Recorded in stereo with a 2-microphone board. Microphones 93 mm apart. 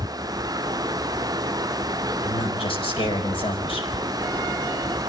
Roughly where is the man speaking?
Left.